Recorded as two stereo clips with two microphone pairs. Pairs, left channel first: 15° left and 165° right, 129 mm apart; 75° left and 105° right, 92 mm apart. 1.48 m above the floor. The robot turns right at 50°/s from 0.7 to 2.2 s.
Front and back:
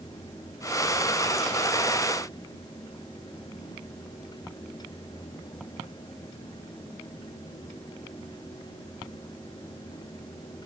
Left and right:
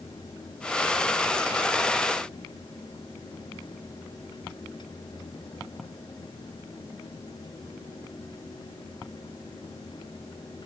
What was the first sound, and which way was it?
Only background noise.